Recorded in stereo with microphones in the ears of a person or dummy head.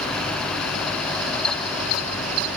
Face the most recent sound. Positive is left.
No sound to turn to.